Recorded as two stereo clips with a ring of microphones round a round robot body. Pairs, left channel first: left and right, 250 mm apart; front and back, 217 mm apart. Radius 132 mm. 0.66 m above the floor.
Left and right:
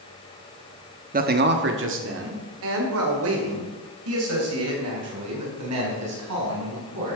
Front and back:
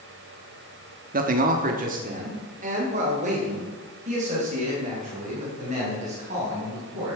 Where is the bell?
I don't hear a bell.